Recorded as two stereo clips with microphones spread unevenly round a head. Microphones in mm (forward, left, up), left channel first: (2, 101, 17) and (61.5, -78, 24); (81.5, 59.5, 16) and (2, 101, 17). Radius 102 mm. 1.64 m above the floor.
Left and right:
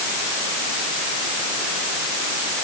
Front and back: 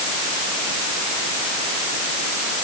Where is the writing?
I don't hear writing.